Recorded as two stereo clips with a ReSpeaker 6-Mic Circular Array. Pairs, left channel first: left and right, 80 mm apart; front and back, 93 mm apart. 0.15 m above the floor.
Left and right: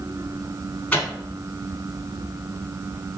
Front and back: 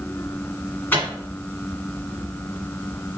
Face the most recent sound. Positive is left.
turn(degrees=35)